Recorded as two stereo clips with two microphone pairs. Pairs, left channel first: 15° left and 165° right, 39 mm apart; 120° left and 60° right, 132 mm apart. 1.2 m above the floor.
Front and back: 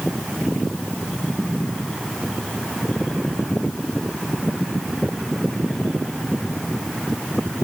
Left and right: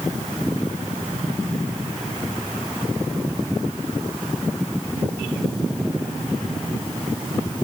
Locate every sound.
Only background noise.